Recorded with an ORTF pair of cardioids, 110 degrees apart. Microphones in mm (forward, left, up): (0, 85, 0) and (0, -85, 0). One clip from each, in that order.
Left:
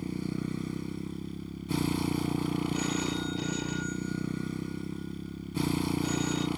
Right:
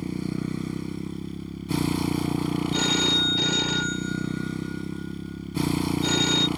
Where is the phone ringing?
60° right.